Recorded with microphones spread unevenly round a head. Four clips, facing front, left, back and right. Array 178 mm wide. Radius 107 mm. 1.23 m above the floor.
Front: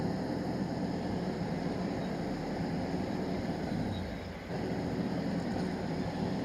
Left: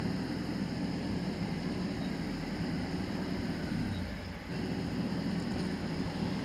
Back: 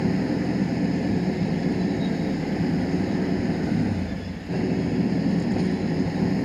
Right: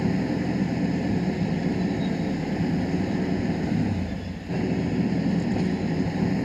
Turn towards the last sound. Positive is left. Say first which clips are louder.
# right 10 dB, back 10 dB
turn(degrees=-155)